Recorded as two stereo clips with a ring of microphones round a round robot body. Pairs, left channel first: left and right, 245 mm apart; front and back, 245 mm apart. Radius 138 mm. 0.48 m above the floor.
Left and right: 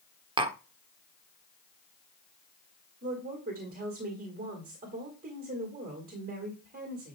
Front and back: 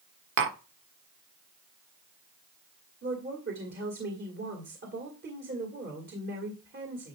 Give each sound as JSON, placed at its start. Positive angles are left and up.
{"t": 0.4, "sound": "tapping", "azimuth_deg": -155, "distance_m": 1.2}
{"t": 3.0, "sound": "a woman speaking", "azimuth_deg": -140, "distance_m": 2.0}